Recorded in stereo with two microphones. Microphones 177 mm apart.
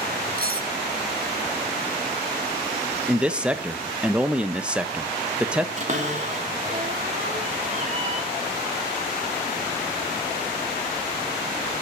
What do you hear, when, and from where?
0.4 s cutlery clinking: 55° right (ahead or behind), 0.9 m
3.1 s a man speaking: 5° right (ahead or behind), 0.7 m
5.8 s a cupboard door: 40° right (ahead or behind), 2 m